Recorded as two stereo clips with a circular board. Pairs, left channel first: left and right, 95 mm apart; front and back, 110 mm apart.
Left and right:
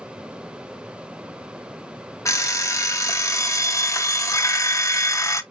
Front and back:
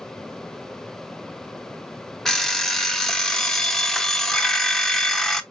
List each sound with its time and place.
2.2 s an alarm clock: 80° left, 0.6 m